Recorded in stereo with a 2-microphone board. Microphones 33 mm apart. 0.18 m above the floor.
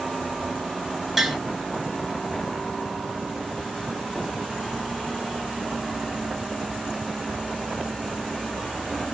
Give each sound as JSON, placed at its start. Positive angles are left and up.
{"t": 1.2, "sound": "tapping", "side_deg": -5, "distance_m": 0.7}